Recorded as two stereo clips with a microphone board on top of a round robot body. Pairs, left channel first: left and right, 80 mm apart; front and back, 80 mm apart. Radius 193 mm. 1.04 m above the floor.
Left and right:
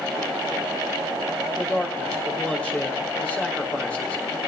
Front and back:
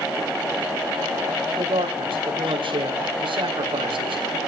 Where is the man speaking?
165° left, 5 m.